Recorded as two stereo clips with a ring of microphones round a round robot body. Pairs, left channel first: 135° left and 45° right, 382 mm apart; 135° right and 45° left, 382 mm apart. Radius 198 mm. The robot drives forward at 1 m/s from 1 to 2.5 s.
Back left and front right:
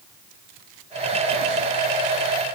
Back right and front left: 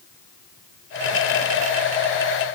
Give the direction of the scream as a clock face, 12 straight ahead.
No scream in this recording.